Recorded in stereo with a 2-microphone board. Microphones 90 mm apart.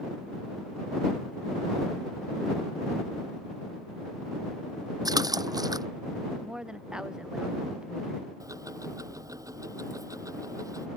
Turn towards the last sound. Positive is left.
turn(degrees=-40)  # may be behind; listen again after turning